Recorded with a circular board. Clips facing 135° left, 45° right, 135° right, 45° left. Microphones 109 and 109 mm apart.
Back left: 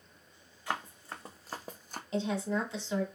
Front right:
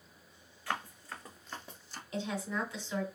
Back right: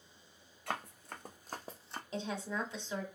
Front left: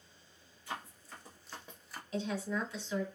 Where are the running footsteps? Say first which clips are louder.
Back left 1 dB, back right 3 dB; 155° right, 1.0 m; by 2.0 s 160° left, 0.5 m.